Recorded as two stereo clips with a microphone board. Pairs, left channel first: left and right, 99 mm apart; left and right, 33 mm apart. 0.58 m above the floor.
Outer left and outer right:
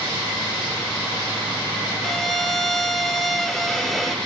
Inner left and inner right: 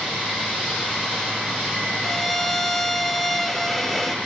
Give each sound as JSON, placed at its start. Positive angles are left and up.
{"t": 2.0, "sound": "a violin", "side_deg": 0, "distance_m": 1.2}